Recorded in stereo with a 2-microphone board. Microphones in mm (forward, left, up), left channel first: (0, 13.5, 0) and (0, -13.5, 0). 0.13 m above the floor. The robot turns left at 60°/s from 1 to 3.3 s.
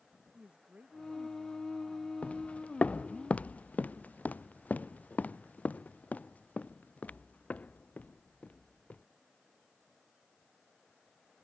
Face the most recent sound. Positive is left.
turn(degrees=70)  # may be behind; listen again after turning